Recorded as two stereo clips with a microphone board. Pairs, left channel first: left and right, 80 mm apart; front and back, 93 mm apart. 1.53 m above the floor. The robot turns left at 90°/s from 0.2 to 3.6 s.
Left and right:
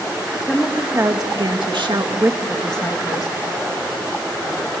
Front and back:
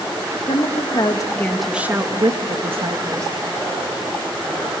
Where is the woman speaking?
15° left, 1.9 m; by 3.3 s 120° left, 1.9 m.